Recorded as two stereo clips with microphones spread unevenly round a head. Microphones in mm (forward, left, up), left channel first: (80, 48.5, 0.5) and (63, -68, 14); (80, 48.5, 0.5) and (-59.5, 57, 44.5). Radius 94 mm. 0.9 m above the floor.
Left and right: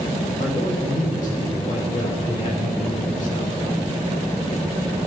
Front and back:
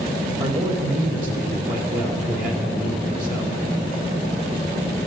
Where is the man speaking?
150° left, 3 m.